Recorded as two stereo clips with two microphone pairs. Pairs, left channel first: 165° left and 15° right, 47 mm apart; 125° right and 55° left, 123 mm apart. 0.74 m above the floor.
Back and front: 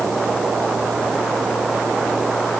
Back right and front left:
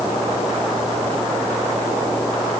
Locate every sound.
Only background noise.